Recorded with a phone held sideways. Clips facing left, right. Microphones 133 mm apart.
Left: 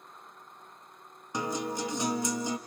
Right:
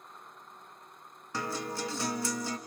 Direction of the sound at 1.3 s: 20° left (ahead or behind).